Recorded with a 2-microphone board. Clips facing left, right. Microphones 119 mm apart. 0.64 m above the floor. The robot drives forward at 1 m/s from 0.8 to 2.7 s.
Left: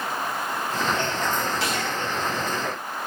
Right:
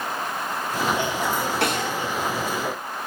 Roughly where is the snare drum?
Right.